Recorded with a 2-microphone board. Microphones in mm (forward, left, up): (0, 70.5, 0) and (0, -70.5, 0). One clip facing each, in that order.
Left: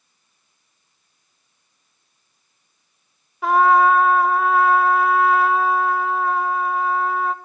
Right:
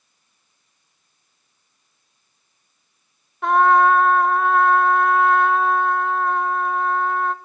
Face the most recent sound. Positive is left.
turn(degrees=5)  # may be behind; listen again after turning